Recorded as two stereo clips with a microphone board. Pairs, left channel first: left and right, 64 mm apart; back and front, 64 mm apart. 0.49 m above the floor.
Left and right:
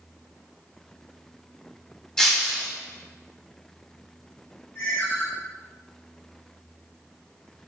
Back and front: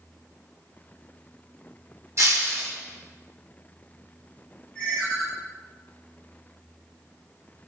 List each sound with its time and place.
2.2 s breaking glass: 15° left, 0.6 m
4.8 s a ringtone: 115° left, 1.1 m